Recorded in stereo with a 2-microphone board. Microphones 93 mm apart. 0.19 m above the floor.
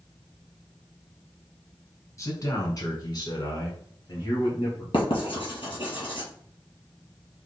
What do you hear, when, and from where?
2.2 s a man speaking: 35° left (ahead or behind), 1.6 m; by 4.8 s 40° left (ahead or behind), 2.5 m
4.9 s writing: 60° left (ahead or behind), 2.5 m